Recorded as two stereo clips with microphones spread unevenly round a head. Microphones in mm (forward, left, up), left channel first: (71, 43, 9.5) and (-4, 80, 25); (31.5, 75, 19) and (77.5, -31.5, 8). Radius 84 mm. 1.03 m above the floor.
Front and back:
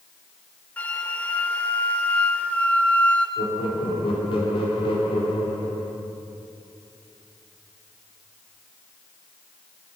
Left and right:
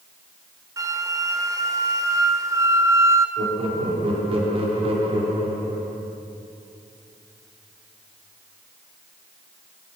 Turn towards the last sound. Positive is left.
turn(degrees=-35)